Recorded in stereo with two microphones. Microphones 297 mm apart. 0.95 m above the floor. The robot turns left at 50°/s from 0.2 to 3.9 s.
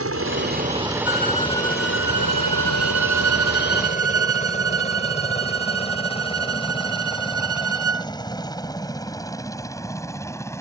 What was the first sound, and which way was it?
A helicopter, 50° right (ahead or behind).